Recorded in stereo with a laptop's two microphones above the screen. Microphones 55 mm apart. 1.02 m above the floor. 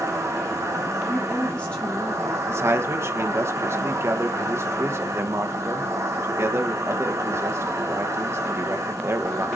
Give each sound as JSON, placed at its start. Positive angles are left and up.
{"t": 0.0, "sound": "an insect", "side_deg": -75, "distance_m": 4.0}
{"t": 1.1, "sound": "a woman speaking", "side_deg": 20, "distance_m": 1.8}
{"t": 2.5, "sound": "a man speaking", "side_deg": -55, "distance_m": 1.0}